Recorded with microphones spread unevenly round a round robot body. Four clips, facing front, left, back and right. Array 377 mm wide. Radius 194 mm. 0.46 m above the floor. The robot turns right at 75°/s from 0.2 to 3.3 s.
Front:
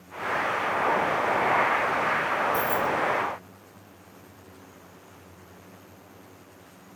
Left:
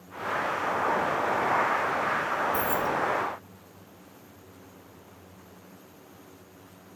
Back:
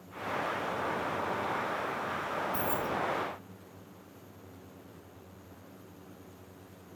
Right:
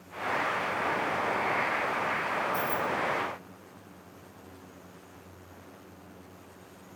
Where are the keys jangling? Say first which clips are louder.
Left 3 dB, front 8 dB; 75° left, 0.7 m; by 2.9 s 105° left, 0.7 m.